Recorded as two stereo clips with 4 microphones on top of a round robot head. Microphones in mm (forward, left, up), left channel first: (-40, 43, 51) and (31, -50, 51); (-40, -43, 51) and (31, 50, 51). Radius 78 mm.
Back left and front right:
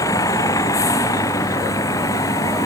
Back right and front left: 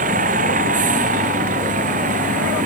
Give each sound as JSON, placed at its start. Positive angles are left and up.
{"t": 0.0, "sound": "a vehicle", "azimuth_deg": 60}